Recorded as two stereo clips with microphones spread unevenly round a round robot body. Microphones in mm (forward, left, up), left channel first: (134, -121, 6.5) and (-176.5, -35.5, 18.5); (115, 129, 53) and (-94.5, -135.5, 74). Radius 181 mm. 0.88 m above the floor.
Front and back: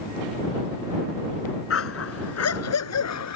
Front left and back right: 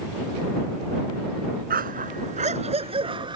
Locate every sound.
1.7 s a dog barking: 65° right; by 3.4 s 50° right